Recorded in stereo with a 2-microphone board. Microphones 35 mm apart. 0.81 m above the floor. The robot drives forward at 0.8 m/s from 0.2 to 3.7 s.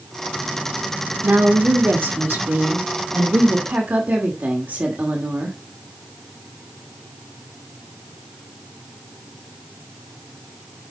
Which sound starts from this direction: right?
A woman speaking, at 1.2 s.